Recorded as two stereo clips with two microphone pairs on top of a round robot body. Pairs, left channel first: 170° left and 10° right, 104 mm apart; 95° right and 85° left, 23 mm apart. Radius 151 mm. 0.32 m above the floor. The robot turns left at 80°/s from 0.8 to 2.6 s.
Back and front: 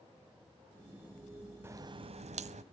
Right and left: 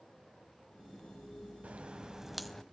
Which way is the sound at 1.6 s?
60° left.